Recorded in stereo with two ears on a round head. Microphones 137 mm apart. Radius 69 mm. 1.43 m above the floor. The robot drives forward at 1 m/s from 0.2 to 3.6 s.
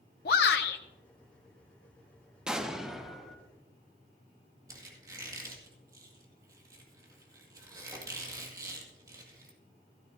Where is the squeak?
25° right (ahead or behind), 1.9 m.